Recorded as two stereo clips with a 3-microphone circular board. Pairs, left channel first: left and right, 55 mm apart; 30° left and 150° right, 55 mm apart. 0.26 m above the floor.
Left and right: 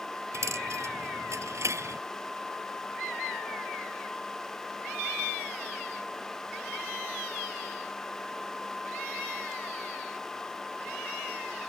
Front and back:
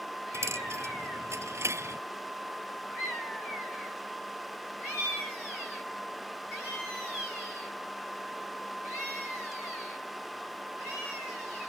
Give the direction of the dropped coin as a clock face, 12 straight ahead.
4 o'clock.